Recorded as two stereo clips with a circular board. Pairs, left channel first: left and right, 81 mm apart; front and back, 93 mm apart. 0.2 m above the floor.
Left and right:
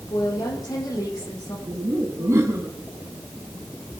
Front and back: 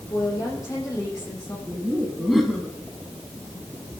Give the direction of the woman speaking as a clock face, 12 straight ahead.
10 o'clock.